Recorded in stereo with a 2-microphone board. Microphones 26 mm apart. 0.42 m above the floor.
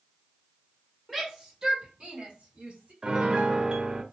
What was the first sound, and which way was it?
A shout, 10° right (ahead or behind).